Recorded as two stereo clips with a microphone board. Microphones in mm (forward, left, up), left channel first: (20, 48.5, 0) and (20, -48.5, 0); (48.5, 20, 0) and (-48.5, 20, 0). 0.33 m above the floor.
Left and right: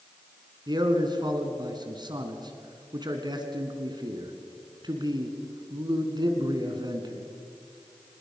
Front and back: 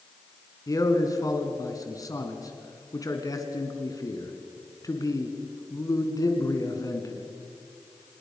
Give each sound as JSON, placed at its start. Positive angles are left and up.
{"t": 0.7, "sound": "a man speaking", "azimuth_deg": -50, "distance_m": 2.5}